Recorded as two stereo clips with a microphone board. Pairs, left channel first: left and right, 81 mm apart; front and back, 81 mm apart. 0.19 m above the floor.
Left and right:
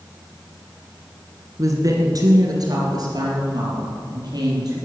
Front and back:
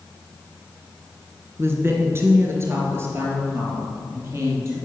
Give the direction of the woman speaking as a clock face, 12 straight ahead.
4 o'clock.